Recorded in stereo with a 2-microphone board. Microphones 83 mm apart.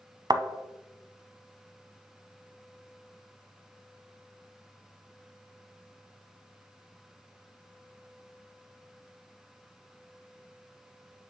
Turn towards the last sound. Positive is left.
turn(degrees=-55)  # may be behind; listen again after turning